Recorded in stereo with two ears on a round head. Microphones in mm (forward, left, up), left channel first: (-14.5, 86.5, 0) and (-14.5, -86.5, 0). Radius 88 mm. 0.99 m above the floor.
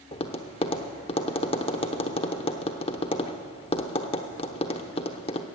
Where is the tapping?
25° left (ahead or behind), 0.8 m.